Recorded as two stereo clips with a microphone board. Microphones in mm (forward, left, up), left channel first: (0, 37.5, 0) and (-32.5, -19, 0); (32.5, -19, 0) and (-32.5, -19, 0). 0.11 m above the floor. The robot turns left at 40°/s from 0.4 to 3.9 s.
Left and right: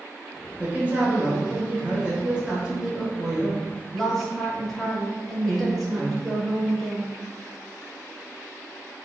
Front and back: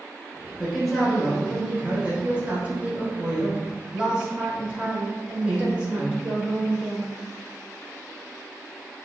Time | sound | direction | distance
0.6 | a woman speaking | 90° right | 1.1 m